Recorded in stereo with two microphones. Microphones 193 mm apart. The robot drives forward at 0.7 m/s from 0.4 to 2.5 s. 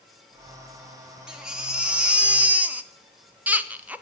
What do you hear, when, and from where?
1.3 s a baby crying: 5° right (ahead or behind), 1.3 m; by 4.0 s 10° right (ahead or behind), 0.6 m